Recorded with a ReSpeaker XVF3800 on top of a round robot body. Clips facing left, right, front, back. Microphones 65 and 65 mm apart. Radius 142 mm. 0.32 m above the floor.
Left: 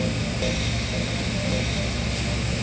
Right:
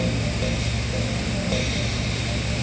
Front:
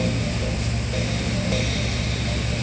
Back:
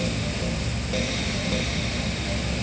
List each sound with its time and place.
Only background noise.